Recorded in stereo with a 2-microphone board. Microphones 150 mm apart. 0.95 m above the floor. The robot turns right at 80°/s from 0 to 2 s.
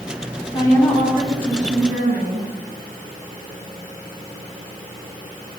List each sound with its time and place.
0.5 s a woman speaking: 150° left, 8 m; by 2.5 s 95° right, 8 m